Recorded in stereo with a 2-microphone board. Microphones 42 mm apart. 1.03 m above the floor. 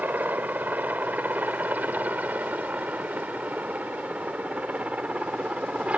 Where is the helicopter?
45° right (ahead or behind); by 6.0 s 35° right (ahead or behind).